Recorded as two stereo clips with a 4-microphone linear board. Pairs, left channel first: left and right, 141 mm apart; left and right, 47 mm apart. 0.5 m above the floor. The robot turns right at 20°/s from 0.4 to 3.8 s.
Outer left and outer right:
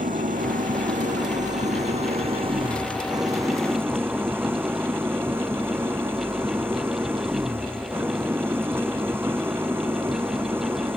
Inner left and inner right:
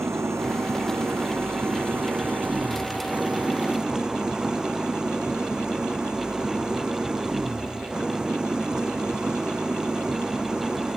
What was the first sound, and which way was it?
An engine running, 85° right.